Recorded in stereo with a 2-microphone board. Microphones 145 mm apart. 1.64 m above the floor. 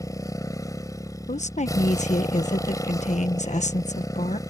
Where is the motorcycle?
25° left (ahead or behind).